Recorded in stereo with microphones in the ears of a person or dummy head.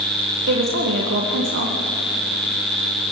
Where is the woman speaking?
60° right (ahead or behind), 1.3 m.